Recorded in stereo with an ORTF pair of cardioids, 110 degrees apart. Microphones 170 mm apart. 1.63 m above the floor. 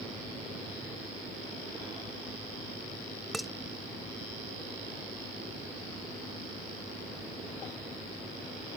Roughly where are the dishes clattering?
Ahead.